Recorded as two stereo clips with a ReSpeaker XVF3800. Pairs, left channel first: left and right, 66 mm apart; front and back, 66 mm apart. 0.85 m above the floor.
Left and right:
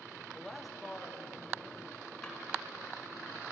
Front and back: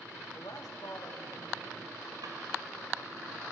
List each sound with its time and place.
0.3 s a woman speaking: 5° left, 1.0 m; by 2.1 s 10° right, 2.5 m
2.2 s a drawer: 175° left, 2.5 m